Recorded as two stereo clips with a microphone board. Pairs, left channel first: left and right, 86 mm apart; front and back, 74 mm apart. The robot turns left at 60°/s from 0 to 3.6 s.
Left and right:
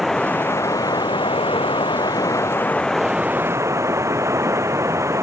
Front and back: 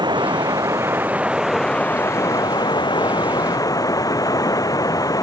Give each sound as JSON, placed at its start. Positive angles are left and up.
{"t": 0.0, "sound": "running water", "azimuth_deg": 180}